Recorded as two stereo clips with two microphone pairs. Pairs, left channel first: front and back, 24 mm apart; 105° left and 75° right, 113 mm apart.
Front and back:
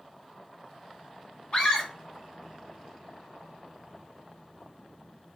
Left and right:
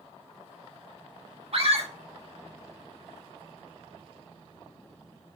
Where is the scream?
45° right, 2 m.